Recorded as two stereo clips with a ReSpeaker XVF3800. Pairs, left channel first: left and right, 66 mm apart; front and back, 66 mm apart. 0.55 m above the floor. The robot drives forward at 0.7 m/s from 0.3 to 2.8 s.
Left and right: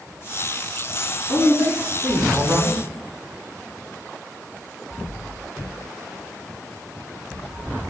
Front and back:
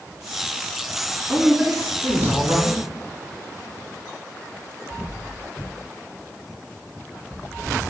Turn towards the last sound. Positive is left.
turn(degrees=-125)